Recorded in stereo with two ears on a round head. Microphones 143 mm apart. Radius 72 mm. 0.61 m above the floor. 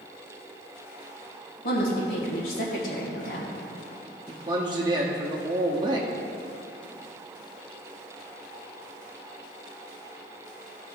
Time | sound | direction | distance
1.6 | a woman speaking | 60° left (ahead or behind) | 2 m
4.3 | a man speaking | 30° right (ahead or behind) | 0.8 m